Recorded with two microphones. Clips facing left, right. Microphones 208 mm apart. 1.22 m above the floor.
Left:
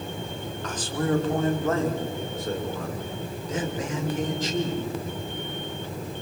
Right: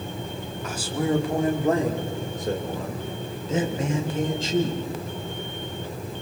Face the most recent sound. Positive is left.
turn(degrees=-30)  # may be behind; listen again after turning